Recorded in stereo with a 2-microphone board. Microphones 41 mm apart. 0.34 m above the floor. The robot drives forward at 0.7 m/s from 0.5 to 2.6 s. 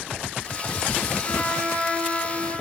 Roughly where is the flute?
Left.